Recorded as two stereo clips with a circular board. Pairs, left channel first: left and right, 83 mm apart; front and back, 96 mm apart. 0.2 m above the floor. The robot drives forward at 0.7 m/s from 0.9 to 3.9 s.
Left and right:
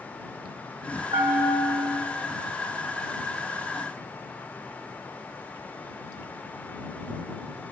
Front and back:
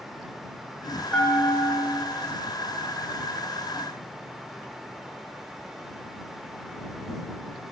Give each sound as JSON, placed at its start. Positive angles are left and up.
{"t": 1.1, "sound": "a bell", "azimuth_deg": -70, "distance_m": 1.8}